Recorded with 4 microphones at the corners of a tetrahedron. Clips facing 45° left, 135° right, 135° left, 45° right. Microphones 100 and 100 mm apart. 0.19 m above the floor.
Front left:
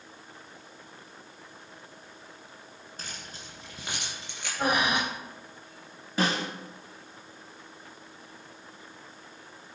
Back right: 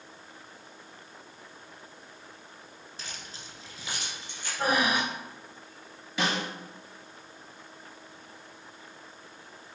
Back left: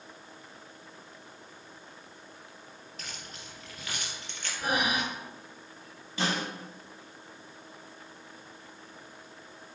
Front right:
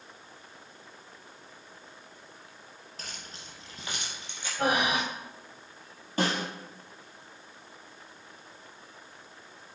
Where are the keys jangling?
5° left, 2 m; by 4.5 s 30° left, 2.5 m.